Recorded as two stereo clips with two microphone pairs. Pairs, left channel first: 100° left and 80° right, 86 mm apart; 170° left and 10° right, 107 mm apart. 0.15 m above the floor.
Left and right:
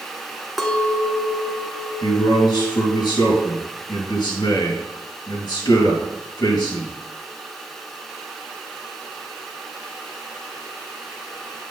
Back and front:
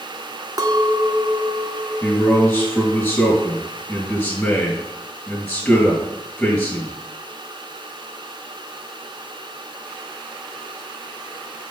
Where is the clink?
5° left, 0.7 m.